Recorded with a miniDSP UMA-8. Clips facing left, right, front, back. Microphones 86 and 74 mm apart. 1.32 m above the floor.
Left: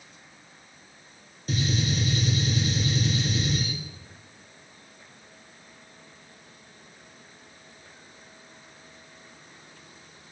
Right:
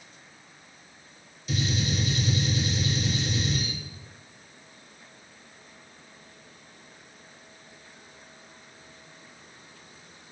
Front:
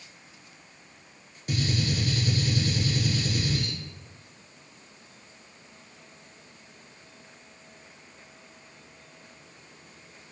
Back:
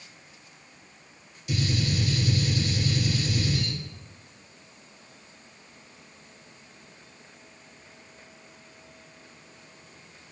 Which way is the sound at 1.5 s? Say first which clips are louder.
Left 1 dB, even; 45° left.